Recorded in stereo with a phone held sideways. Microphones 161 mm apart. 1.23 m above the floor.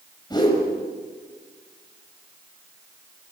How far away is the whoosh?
About 6 m.